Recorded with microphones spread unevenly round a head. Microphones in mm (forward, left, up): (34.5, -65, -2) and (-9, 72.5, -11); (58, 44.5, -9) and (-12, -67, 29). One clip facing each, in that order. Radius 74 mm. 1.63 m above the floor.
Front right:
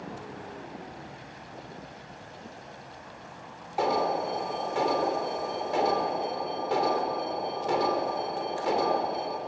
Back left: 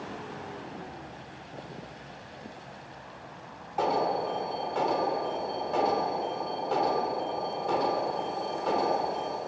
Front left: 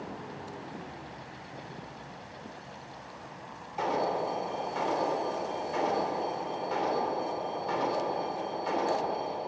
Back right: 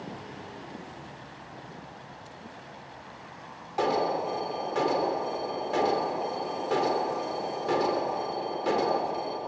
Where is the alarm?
150° right, 3 m.